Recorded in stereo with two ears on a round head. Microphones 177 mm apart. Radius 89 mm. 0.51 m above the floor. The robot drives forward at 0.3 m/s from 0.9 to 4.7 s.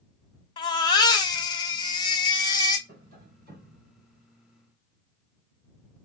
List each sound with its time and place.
0.6 s a baby crying: 20° left (ahead or behind), 0.8 m
2.9 s tapping: 50° right (ahead or behind), 2.5 m